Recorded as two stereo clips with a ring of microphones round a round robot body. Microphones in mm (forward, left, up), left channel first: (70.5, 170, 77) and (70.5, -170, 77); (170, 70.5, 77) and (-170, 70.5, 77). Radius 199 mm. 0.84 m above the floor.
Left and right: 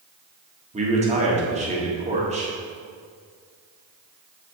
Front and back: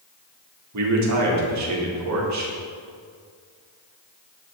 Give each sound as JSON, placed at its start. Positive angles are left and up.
{"t": 0.7, "sound": "a man speaking", "azimuth_deg": -155, "distance_m": 1.5}